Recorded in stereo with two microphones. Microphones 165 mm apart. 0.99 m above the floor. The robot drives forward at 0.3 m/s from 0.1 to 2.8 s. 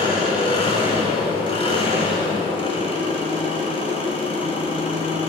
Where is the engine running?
25° left (ahead or behind), 5.5 m; by 5.3 s 30° left (ahead or behind), 4.5 m.